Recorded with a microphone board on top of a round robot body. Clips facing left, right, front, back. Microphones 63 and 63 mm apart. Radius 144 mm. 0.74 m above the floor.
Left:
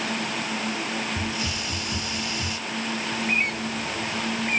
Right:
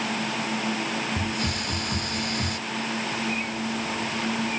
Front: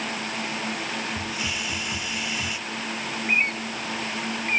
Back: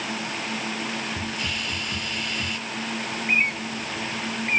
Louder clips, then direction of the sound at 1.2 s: Right 1 dB, even; 80° right.